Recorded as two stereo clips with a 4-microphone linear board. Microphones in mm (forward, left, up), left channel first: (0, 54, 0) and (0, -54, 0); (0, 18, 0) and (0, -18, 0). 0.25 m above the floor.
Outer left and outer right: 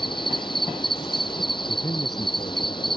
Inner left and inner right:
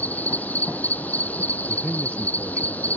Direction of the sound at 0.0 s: 45° left (ahead or behind).